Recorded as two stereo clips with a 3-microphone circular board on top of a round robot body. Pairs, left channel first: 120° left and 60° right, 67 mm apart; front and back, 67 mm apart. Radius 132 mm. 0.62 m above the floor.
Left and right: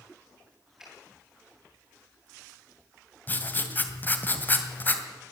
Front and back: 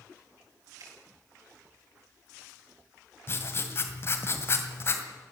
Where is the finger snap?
145° right, 8 m.